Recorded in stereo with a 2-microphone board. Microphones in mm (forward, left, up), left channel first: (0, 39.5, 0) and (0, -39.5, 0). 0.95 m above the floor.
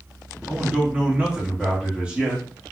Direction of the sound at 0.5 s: 15° right (ahead or behind).